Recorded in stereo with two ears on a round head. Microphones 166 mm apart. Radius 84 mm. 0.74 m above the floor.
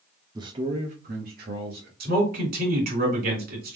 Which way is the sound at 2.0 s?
55° right (ahead or behind).